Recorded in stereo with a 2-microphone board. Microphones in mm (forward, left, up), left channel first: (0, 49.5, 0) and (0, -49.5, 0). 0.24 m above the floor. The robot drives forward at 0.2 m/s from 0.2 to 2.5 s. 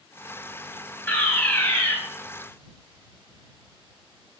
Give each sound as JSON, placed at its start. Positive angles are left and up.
{"t": 1.1, "sound": "a fire alarm", "side_deg": 15, "distance_m": 2.5}